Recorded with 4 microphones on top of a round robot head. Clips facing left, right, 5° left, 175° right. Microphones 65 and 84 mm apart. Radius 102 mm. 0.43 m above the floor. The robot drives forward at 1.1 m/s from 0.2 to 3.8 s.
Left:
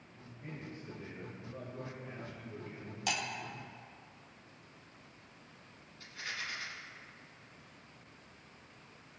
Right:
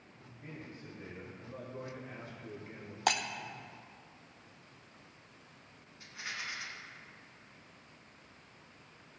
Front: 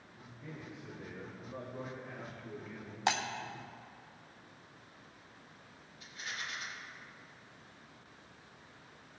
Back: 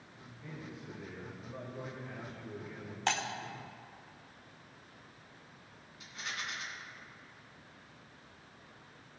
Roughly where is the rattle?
Behind.